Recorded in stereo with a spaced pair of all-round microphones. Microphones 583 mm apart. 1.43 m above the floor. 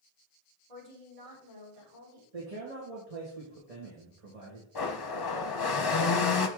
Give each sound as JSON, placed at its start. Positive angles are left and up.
{"t": 0.7, "sound": "a woman speaking", "side_deg": -80, "distance_m": 4.0}
{"t": 2.3, "sound": "a man speaking", "side_deg": -80, "distance_m": 1.6}
{"t": 4.8, "sound": "a blender", "side_deg": 45, "distance_m": 0.6}